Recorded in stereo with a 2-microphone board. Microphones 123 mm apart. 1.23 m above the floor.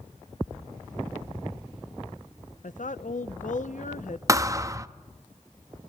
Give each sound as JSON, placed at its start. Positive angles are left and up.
{"t": 2.6, "sound": "a woman speaking", "side_deg": 75, "distance_m": 0.7}
{"t": 4.3, "sound": "a thud", "side_deg": -25, "distance_m": 0.6}